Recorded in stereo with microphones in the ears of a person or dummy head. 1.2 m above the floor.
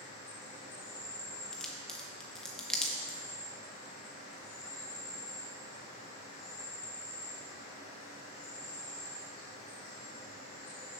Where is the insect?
50° left (ahead or behind), 3.5 m.